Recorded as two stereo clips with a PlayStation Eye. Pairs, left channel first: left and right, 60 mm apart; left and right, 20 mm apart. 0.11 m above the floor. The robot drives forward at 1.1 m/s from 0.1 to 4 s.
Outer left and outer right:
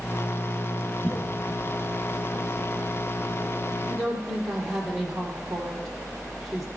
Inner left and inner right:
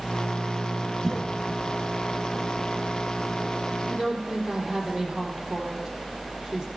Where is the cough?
40° left (ahead or behind), 4 m; by 1.7 s 45° left (ahead or behind), 3.5 m.